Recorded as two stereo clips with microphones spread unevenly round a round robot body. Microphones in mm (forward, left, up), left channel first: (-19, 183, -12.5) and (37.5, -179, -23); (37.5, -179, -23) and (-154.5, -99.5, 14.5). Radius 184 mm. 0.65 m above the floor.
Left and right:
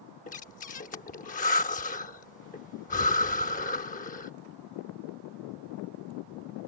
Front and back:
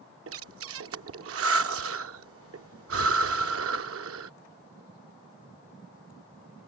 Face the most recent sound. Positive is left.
turn(degrees=170)